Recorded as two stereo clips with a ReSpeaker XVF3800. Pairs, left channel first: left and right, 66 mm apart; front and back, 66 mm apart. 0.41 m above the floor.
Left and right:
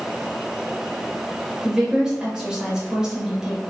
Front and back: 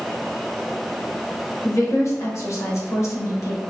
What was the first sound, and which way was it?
A woman speaking, 15° right.